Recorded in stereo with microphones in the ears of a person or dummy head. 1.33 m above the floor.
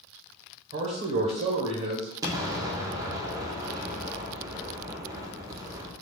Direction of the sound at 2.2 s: 20° right (ahead or behind).